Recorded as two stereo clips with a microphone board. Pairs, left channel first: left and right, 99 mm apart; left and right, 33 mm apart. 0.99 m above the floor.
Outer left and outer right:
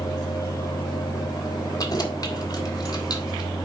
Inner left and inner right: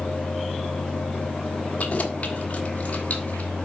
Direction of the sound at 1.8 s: 45° left (ahead or behind).